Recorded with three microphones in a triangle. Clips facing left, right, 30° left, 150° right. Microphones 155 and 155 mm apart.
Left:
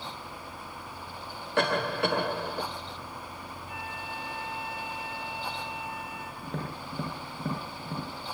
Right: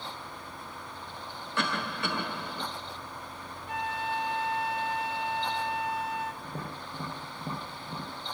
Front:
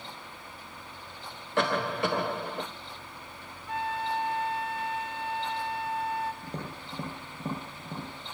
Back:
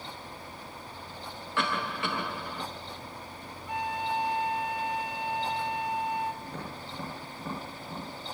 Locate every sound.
1.6 s a cough: 75° left, 1.7 m
3.7 s a flute: 75° right, 1.5 m
6.4 s tapping: 90° left, 9.5 m